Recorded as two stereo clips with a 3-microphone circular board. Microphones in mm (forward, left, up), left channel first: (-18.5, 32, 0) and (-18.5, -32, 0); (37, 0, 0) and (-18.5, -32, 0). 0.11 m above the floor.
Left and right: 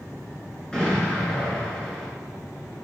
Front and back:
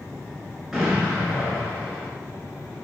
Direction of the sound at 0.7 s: 145° left.